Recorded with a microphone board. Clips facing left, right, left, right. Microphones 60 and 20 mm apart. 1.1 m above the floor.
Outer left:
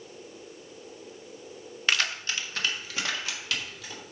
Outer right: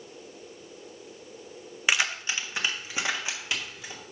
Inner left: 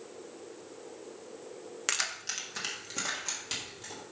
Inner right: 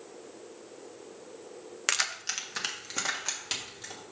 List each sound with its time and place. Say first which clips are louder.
1.9 s keys jangling: outer right 1 dB, inner right 3 dB; 15° right (ahead or behind), 0.6 m; by 4.0 s 20° right (ahead or behind), 2.5 m